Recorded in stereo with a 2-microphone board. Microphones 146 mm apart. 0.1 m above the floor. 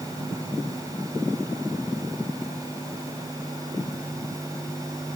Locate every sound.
Only background noise.